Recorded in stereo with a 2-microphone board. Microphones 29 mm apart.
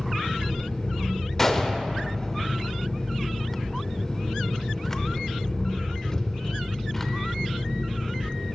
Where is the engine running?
20° left (ahead or behind), 1.0 m.